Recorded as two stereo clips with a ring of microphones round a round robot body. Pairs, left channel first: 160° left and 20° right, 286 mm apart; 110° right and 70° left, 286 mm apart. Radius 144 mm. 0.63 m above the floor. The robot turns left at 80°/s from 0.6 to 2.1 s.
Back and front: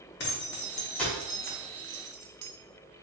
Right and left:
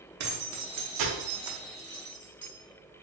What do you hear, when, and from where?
0.2 s keys jangling: 105° left, 0.7 m; by 2.5 s 15° right, 0.7 m